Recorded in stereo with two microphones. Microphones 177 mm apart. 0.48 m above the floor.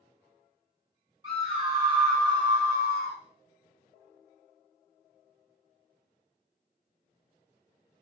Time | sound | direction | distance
1.2 | a scream | 35° right (ahead or behind) | 0.9 m